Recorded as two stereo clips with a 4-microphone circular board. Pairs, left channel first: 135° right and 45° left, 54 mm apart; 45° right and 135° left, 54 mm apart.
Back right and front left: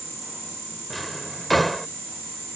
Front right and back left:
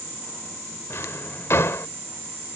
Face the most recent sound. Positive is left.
turn(degrees=-45)